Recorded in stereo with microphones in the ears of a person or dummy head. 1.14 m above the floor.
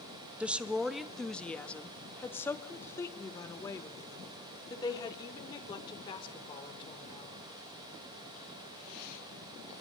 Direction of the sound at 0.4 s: 10° right (ahead or behind).